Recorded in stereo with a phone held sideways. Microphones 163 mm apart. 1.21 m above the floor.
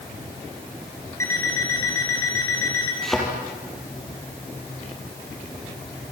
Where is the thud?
Centre (ahead or behind), 5 m.